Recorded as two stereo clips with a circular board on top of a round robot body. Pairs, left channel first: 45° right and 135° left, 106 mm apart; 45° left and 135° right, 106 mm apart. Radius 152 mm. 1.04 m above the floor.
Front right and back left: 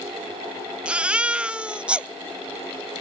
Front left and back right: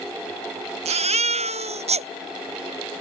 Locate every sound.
0.8 s a baby crying: 145° right